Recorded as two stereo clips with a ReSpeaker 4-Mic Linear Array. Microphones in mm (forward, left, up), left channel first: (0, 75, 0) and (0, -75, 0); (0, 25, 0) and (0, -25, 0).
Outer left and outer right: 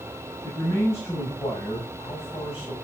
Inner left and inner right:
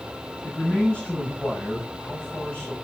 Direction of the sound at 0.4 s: 20° left (ahead or behind).